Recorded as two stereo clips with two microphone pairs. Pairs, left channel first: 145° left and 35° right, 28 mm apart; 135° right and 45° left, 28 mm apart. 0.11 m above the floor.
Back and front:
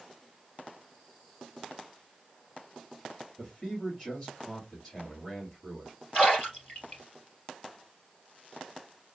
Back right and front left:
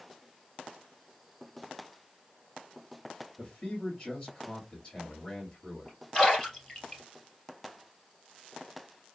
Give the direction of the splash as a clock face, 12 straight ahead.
6 o'clock.